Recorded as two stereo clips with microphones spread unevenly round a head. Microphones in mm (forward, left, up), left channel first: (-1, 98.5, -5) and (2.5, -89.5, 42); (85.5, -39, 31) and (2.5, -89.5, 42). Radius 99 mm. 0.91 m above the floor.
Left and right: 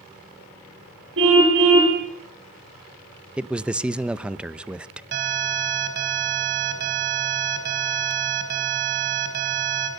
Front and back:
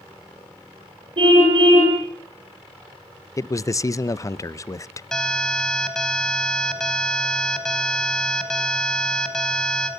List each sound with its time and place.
1.2 s a car horn: 115° right, 10 m
3.4 s a man speaking: 10° left, 0.7 m
5.1 s an alarm: 55° right, 4.5 m